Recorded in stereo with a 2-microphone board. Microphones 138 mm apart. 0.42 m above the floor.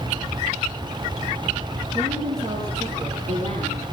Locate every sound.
1.9 s a woman speaking: 60° right (ahead or behind), 8.5 m